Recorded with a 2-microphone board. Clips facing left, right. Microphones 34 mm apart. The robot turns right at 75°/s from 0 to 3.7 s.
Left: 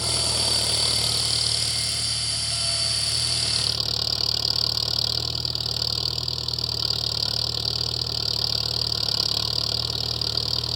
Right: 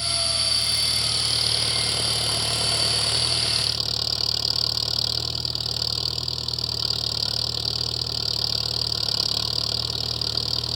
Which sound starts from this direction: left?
An engine running, at 0.0 s.